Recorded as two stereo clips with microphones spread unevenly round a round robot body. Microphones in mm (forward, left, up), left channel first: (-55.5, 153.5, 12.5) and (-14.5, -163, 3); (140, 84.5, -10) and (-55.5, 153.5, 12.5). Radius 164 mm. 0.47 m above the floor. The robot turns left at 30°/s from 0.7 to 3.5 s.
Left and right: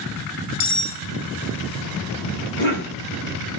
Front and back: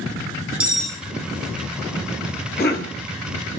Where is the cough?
20° left, 4.5 m; by 3.0 s 10° left, 4.5 m.